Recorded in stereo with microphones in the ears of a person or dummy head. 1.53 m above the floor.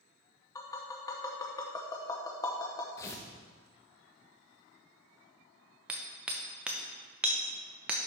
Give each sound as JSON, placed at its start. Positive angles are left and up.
{"t": 0.6, "sound": "tapping", "side_deg": 20, "distance_m": 0.9}
{"t": 3.0, "sound": "tearing paper", "side_deg": 15, "distance_m": 0.8}
{"t": 5.9, "sound": "hammering", "side_deg": -5, "distance_m": 0.7}